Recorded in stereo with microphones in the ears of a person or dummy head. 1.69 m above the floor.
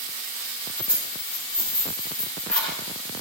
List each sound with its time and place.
0.8 s keys jangling: 5° left (ahead or behind), 5 m